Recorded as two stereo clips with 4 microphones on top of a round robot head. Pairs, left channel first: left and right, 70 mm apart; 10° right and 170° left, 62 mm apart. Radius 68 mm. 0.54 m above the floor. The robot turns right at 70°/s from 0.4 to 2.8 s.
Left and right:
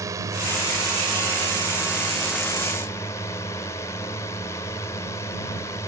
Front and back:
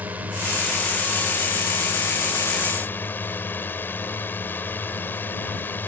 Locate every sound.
0.0 s a drone: 125° right; by 5.9 s 45° left